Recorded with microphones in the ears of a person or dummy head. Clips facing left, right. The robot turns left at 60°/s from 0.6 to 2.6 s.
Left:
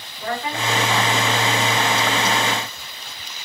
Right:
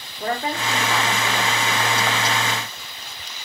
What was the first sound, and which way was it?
A woman speaking, 40° right.